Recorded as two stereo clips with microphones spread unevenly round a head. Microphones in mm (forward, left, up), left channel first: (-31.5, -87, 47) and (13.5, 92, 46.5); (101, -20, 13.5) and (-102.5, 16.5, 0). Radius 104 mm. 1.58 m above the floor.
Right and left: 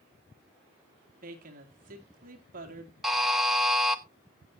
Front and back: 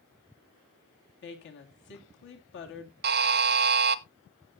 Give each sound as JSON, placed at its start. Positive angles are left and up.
{"t": 1.2, "sound": "a woman speaking", "azimuth_deg": 25, "distance_m": 2.5}
{"t": 3.0, "sound": "a buzzer", "azimuth_deg": 165, "distance_m": 0.6}